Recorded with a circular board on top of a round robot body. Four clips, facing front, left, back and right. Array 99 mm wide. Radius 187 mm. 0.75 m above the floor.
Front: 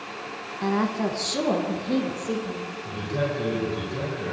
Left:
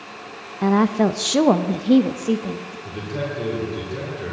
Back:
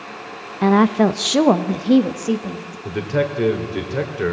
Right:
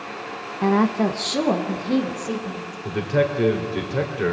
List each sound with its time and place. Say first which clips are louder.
0.6 s a woman speaking: left 2 dB, back 10 dB; 175° right, 1.1 m; by 2.8 s 135° left, 2.5 m
2.9 s a man speaking: right 8 dB, back 7 dB; 145° right, 3.5 m